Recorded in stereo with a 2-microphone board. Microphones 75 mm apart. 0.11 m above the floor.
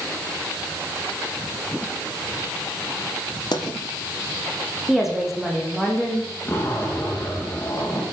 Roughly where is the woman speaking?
Centre.